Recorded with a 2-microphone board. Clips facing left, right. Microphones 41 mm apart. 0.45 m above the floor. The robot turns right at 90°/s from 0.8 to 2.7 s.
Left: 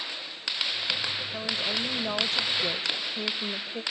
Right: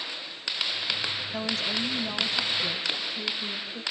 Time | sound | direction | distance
1.3 | a woman speaking | straight ahead | 1.6 m